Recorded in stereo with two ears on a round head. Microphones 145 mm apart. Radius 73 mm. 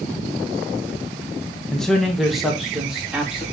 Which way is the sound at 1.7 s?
5° left (ahead or behind).